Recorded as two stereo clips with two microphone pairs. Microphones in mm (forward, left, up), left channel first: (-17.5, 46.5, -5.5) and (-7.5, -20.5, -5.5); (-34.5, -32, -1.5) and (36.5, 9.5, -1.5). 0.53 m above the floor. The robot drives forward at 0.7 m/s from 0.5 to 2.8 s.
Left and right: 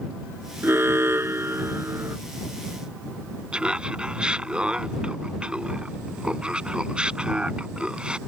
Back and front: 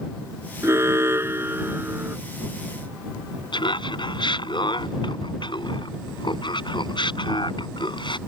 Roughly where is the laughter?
Behind.